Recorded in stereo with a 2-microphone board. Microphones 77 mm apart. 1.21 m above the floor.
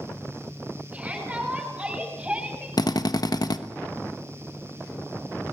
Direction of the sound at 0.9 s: 15° right (ahead or behind).